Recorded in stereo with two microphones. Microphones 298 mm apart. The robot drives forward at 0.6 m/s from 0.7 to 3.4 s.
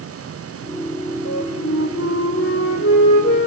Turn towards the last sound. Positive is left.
turn(degrees=40)  # may be behind; listen again after turning